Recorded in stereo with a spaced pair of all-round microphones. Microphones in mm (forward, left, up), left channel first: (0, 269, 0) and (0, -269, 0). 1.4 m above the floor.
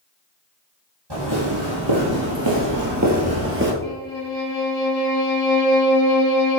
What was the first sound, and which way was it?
Footsteps, 45° right (ahead or behind).